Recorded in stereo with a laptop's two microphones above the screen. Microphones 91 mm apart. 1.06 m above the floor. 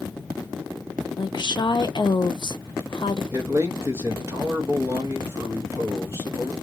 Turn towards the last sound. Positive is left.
turn(degrees=-30)  # may be behind; listen again after turning